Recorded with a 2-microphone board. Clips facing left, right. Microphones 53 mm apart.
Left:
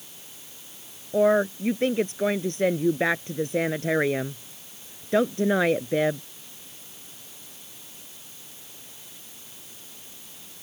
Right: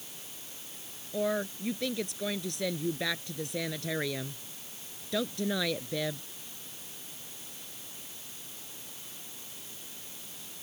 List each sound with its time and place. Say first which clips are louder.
1.1 s a woman speaking: left 11 dB; 40° left (ahead or behind)